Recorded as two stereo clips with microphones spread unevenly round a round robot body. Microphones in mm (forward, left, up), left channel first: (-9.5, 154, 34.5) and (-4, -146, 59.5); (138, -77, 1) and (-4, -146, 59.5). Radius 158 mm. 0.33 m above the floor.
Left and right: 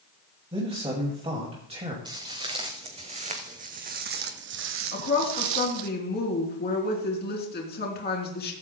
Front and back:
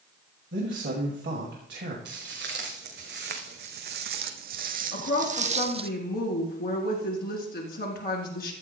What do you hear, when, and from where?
0.5 s a man speaking: 160° right, 2 m
2.0 s footsteps: 165° right, 2.5 m; by 5.9 s 105° right, 1.0 m
4.9 s a woman speaking: 35° left, 3.5 m